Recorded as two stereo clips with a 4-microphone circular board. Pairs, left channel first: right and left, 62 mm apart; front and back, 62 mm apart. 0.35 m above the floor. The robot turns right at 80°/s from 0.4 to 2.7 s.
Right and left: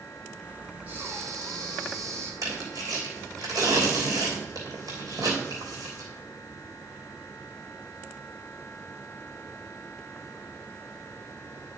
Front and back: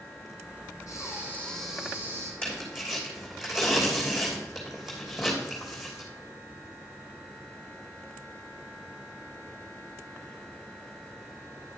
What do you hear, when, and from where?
0.9 s breathing: 25° left, 2.5 m; by 2.3 s 140° left, 2.5 m
2.4 s tearing paper: 70° left, 3 m; by 6.0 s 95° left, 3 m